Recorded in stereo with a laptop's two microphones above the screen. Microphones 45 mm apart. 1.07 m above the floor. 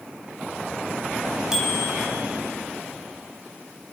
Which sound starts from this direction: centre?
A bicycle bell, at 1.5 s.